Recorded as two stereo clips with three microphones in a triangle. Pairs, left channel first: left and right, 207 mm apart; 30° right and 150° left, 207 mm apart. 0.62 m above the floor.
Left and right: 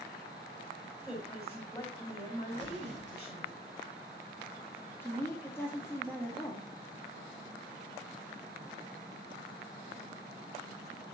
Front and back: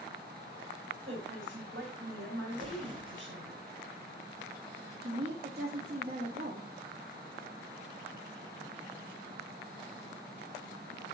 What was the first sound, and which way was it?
A woman speaking, 165° left.